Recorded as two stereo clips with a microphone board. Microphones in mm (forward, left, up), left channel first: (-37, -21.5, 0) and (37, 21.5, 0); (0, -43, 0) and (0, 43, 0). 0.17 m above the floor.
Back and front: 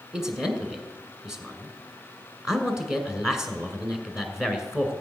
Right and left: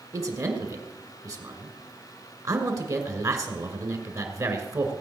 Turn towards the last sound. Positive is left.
turn(degrees=110)